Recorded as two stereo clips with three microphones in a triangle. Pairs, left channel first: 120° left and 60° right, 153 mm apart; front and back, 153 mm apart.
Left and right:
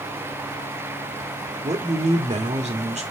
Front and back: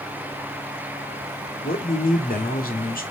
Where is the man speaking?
20° right, 1.8 m.